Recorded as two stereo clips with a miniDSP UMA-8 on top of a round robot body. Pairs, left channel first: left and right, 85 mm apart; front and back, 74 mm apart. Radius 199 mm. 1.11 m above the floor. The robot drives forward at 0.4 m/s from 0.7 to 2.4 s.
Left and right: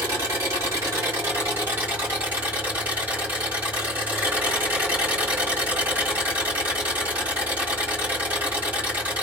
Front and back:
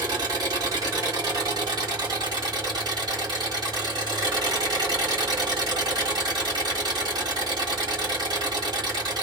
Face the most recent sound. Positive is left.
turn(degrees=-160)